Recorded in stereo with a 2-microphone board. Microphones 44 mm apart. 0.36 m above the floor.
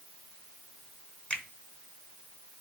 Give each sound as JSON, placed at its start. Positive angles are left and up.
{"t": 1.3, "sound": "a finger snap", "side_deg": 30, "distance_m": 1.0}